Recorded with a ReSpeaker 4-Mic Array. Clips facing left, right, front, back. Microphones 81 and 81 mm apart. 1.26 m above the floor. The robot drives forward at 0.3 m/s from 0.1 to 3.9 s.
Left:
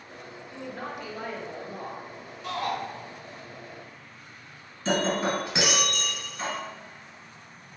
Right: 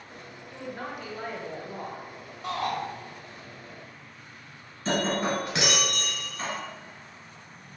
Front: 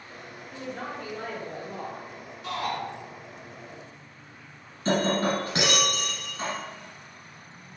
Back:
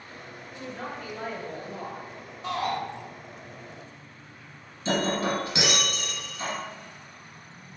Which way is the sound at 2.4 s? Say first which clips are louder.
Even, back 2 dB; 125° right.